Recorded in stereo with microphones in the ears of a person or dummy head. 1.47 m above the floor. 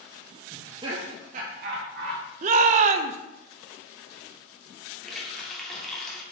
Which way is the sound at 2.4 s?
45° right (ahead or behind).